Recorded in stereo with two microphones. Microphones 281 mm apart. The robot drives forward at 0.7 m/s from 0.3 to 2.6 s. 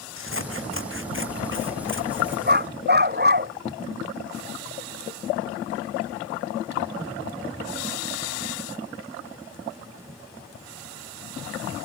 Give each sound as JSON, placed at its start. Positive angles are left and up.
{"t": 0.2, "sound": "scissors", "side_deg": -45}
{"t": 2.5, "sound": "a dog barking", "side_deg": -35}